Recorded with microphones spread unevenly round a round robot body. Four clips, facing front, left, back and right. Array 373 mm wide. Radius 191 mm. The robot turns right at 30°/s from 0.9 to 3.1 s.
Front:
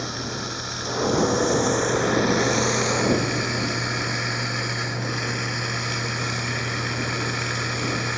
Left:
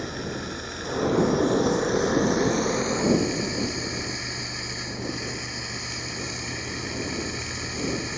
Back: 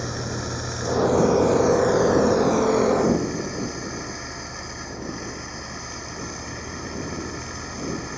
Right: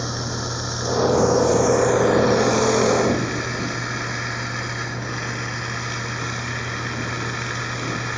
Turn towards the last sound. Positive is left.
turn(degrees=-40)